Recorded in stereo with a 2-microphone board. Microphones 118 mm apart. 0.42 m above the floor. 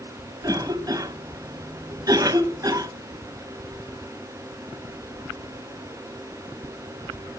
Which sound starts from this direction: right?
A cough, at 0.4 s.